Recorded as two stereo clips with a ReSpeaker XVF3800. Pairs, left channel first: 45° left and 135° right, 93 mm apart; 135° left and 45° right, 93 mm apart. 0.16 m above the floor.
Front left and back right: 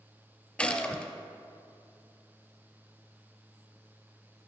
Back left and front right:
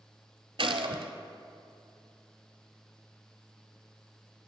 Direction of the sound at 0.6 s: 30° right.